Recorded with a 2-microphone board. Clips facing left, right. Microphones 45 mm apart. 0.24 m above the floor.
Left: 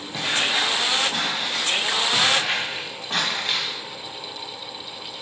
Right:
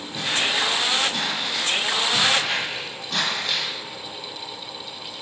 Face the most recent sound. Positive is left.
turn(degrees=30)  # may be behind; listen again after turning